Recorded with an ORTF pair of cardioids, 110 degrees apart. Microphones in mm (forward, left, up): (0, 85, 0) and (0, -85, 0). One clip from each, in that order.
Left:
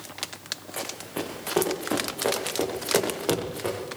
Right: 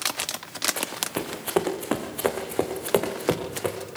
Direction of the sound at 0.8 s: 35° right.